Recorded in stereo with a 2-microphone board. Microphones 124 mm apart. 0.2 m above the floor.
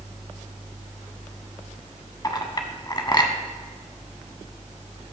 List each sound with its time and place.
2.2 s a clink: 30° left (ahead or behind), 0.7 m